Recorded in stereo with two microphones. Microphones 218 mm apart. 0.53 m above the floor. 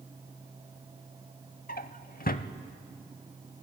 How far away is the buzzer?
No buzzer in this recording.